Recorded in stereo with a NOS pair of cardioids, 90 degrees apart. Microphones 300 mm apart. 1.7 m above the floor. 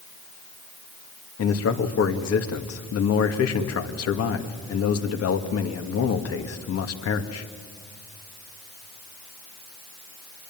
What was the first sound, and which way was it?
A man speaking, 55° left.